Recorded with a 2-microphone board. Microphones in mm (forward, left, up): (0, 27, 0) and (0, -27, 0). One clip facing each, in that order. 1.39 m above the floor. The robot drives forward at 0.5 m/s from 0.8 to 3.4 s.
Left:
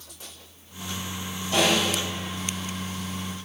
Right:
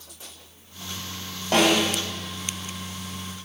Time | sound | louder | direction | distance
1.5 | a snare drum | right 3 dB | 60° right (ahead or behind) | 2.5 m